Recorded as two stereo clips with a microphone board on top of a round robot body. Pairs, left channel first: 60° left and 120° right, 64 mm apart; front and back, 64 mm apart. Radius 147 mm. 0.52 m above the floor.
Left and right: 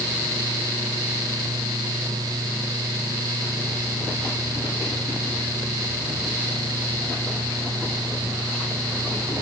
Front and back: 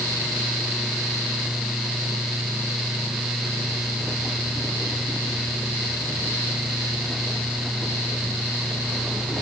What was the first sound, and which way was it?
Only background noise.